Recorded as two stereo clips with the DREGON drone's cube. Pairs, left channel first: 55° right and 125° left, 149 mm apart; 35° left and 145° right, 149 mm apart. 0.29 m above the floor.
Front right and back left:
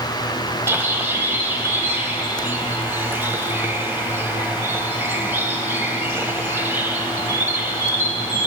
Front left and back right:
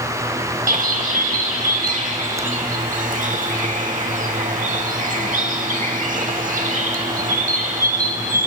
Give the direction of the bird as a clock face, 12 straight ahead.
5 o'clock.